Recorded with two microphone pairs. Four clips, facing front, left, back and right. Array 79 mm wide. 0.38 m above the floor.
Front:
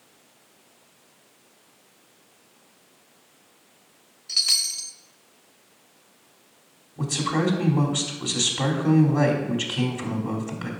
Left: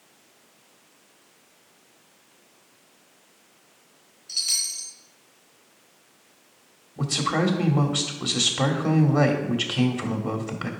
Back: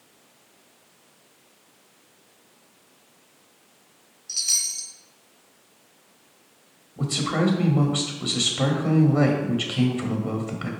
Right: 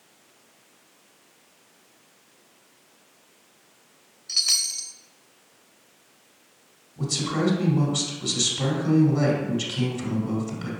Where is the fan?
I don't hear a fan.